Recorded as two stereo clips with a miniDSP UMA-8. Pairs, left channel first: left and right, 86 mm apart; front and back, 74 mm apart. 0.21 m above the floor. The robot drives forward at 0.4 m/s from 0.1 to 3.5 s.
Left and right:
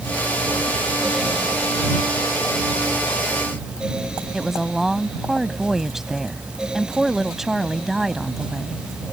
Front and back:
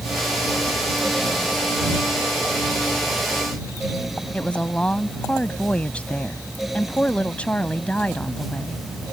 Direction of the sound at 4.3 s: 15° right.